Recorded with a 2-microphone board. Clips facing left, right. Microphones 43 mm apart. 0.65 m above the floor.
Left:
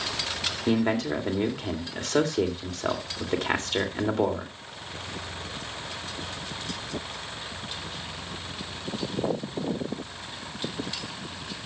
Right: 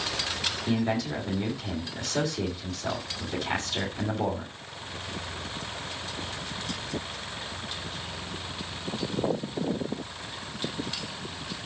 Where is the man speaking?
60° left (ahead or behind), 2.5 m.